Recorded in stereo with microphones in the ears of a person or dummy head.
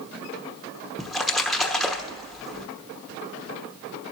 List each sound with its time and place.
1.0 s a splash: centre (ahead or behind), 1.0 m